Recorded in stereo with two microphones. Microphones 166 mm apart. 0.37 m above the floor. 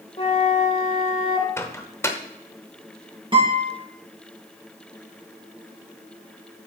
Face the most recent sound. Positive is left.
turn(degrees=-30)  # may be behind; listen again after turning